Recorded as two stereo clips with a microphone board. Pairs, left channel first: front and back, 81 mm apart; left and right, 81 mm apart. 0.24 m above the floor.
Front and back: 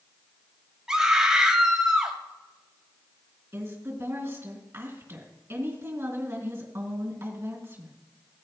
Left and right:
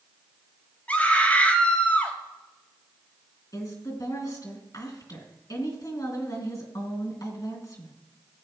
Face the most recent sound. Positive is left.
turn(degrees=125)